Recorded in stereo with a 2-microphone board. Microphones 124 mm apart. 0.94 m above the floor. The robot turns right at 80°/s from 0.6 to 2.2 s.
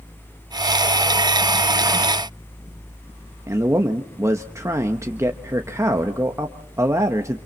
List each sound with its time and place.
3.5 s a man speaking: 20° right (ahead or behind), 1.1 m